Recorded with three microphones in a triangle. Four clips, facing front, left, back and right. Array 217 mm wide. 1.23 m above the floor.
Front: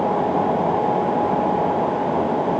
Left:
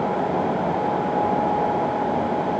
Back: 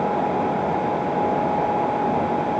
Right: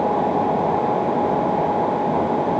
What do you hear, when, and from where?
Only background noise.